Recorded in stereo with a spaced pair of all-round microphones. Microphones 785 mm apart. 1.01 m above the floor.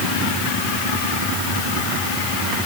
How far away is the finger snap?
I don't hear a finger snap.